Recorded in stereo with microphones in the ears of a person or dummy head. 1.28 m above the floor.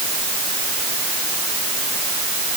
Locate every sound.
Only background noise.